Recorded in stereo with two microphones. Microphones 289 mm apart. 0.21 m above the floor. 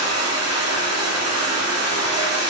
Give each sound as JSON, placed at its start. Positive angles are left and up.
{"t": 0.0, "sound": "running water", "side_deg": -65, "distance_m": 1.6}